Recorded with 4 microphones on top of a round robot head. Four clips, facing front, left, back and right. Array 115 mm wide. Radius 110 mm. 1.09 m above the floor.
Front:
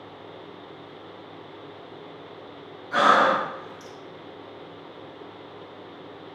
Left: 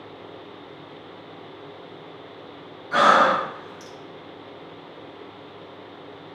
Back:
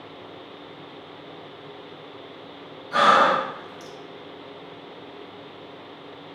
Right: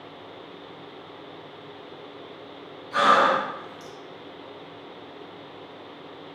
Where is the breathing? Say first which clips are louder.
Left 2 dB, back 1 dB; 100° left, 2 m.